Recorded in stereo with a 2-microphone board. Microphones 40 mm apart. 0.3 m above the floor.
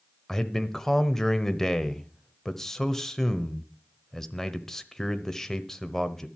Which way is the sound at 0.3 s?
15° left (ahead or behind).